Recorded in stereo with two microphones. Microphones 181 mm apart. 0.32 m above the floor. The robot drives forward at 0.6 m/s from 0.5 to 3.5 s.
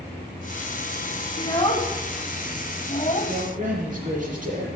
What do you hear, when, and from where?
1.4 s a child speaking: 25° left (ahead or behind), 2 m; by 3.3 s 40° left (ahead or behind), 1.4 m
3.3 s a man speaking: 45° right (ahead or behind), 6.5 m